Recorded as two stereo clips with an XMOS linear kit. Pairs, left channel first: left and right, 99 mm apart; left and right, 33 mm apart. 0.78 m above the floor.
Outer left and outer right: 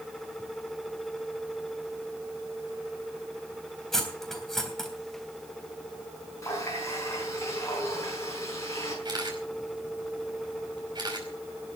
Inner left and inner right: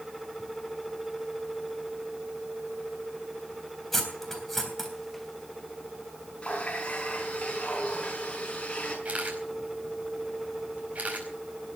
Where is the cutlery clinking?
5° left (ahead or behind), 3.5 m.